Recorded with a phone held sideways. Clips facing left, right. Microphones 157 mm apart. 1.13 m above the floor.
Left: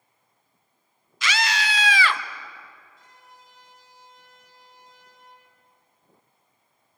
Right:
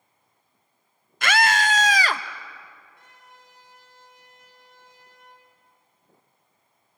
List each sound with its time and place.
1.2 s a scream: 60° right (ahead or behind), 0.8 m; by 2.2 s 40° right (ahead or behind), 1.4 m
3.0 s a trumpet: 65° right (ahead or behind), 6 m